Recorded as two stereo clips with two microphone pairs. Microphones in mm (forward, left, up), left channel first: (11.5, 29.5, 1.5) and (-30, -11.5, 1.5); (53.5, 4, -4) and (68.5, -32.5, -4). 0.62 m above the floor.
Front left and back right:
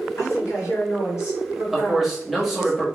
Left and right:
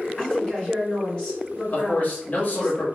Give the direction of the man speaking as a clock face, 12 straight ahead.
7 o'clock.